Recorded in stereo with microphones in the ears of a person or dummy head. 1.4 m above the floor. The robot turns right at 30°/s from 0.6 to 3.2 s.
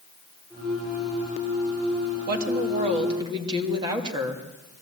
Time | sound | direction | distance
2.3 | a woman speaking | 50° right (ahead or behind) | 2.5 m